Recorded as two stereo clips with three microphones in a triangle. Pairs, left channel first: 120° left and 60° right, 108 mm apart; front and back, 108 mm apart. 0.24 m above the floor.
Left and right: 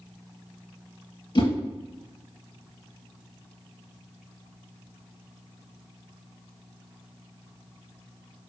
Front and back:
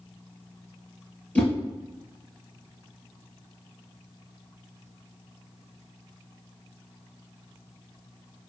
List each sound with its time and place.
1.4 s a whoosh: 75° left, 0.7 m